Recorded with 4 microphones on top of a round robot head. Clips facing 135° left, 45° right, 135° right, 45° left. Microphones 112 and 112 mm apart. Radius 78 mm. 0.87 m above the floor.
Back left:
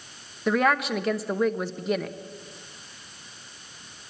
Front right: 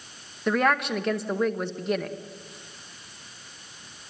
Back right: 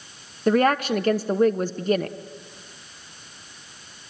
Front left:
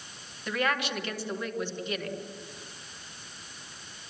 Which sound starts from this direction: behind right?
A woman speaking, at 0.5 s.